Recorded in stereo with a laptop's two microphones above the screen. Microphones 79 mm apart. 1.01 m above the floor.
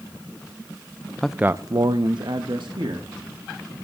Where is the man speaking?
10° left (ahead or behind), 0.5 m; by 3.7 s 70° right (ahead or behind), 3 m.